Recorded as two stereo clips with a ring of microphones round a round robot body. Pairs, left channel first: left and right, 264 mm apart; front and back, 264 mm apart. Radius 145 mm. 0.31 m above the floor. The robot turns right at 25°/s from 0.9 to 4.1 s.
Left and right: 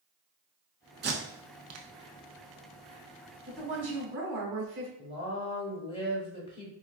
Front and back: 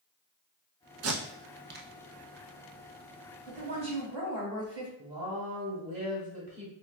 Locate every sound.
1.0 s tape being pulled: 145° right, 0.6 m; by 1.9 s 120° right, 0.6 m
3.5 s a woman speaking: 130° right, 1.7 m; by 4.9 s 110° right, 1.7 m
5.0 s a woman speaking: 145° left, 1.0 m